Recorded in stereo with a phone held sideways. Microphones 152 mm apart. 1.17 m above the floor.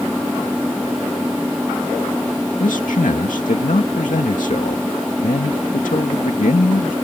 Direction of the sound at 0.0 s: Centre (ahead or behind).